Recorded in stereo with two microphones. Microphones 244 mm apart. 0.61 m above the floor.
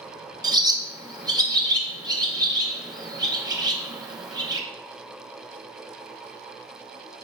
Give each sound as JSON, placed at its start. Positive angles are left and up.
{"t": 0.4, "sound": "a bird", "side_deg": -15, "distance_m": 0.5}